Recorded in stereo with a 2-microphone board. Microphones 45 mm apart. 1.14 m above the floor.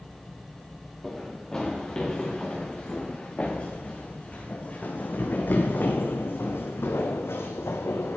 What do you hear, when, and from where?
1.0 s running footsteps: 10° left (ahead or behind), 4.5 m; by 8.2 s 70° left (ahead or behind), 3.5 m